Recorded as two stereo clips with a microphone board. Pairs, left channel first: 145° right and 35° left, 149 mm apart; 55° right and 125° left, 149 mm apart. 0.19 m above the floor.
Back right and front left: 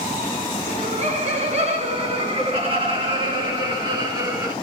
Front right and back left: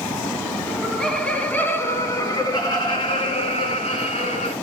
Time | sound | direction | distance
0.7 | laughter | 35° left | 2.5 m